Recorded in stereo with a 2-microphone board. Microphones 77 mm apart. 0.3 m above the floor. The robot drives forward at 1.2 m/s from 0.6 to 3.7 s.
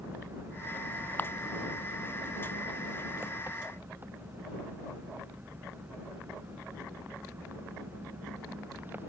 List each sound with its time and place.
0.0 s an engine running: 30° right (ahead or behind); by 9.1 s 25° right (ahead or behind)
1.2 s a camera shutter: 25° left (ahead or behind)